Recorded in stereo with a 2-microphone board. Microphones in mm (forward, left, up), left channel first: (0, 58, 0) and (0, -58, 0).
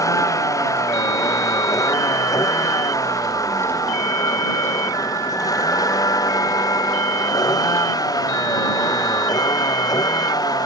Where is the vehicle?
30° left (ahead or behind); by 10.7 s 35° left (ahead or behind).